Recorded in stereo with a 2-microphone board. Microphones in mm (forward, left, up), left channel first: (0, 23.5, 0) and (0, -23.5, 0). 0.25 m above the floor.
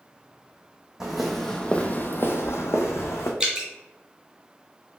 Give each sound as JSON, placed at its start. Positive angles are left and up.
{"t": 1.0, "sound": "footsteps", "side_deg": -10, "distance_m": 0.7}
{"t": 3.4, "sound": "dripping", "side_deg": -15, "distance_m": 0.9}